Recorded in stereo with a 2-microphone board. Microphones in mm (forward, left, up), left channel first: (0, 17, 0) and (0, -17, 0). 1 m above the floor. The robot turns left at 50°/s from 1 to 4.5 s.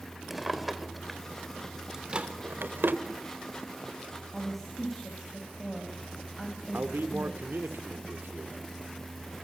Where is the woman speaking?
10° left (ahead or behind), 5 m; by 7.7 s 5° left (ahead or behind), 5 m.